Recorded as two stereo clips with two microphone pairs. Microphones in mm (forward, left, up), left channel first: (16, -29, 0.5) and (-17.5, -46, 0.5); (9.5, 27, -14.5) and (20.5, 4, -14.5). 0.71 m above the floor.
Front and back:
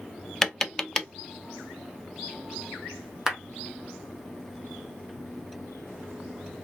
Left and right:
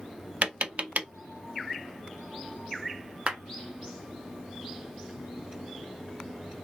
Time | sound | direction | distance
0.4 | tapping | 55° right | 0.5 m
3.3 | a clap | 75° right | 1.2 m